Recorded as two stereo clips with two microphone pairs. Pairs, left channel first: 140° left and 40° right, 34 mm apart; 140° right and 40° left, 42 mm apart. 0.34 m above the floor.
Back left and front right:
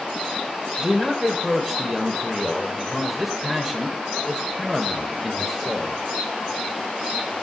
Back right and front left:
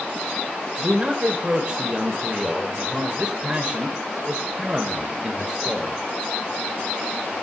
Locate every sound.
0.8 s a man speaking: 25° left, 1.2 m